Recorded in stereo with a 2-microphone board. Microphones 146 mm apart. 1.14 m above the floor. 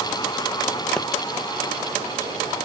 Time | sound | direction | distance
1.0 | a pop | 5° left (ahead or behind) | 0.9 m